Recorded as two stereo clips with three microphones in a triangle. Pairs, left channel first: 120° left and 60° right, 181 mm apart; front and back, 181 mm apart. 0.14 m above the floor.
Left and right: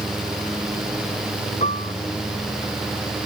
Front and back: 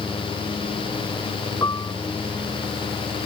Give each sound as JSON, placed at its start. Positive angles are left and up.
{"t": 1.6, "sound": "a piano", "azimuth_deg": 70}